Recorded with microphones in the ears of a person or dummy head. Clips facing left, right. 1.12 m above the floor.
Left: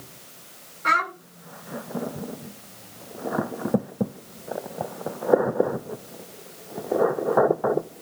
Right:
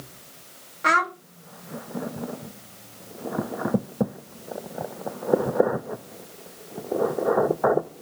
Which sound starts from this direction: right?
A child speaking, at 0.8 s.